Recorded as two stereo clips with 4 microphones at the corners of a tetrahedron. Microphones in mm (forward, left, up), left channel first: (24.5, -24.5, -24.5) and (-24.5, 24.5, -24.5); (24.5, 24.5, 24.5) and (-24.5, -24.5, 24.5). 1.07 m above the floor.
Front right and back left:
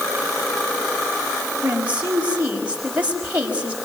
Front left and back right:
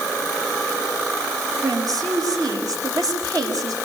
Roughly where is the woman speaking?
Behind right.